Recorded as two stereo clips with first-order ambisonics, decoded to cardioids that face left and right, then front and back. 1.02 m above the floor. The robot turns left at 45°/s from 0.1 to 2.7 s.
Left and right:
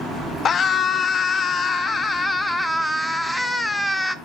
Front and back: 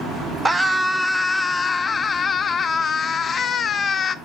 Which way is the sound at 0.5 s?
110° left.